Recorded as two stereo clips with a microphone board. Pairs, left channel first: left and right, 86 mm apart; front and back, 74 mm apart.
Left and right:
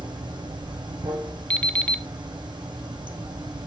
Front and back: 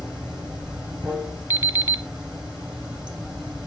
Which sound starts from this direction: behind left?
An alarm clock, at 1.5 s.